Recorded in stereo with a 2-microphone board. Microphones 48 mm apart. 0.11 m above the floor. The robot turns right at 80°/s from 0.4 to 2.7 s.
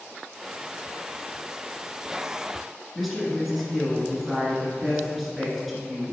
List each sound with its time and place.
3.0 s a woman speaking: centre (ahead or behind), 1.8 m